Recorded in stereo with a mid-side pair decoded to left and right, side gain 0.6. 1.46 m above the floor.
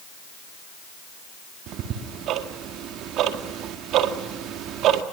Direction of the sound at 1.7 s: 65° right.